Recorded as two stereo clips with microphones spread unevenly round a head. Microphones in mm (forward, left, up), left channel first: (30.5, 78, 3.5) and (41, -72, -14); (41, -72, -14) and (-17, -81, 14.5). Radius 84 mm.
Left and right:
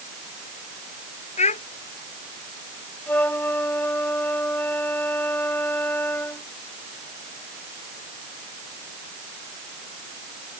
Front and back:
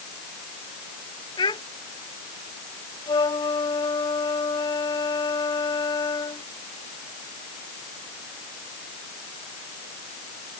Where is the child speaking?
50° left.